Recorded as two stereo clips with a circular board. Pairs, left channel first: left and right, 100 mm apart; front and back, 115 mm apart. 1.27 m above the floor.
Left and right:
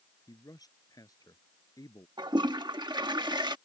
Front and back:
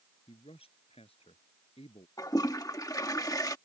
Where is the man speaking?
35° left.